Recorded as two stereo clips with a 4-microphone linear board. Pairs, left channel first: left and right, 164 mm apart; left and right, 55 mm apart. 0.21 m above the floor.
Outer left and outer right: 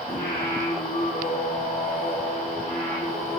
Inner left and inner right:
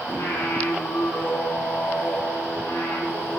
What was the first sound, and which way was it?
Singing, 85° left.